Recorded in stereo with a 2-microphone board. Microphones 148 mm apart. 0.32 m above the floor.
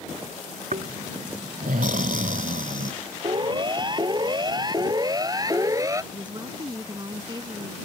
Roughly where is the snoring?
Right.